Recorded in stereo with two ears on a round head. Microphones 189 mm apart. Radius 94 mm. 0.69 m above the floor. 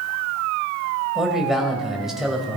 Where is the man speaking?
Centre (ahead or behind), 3 m.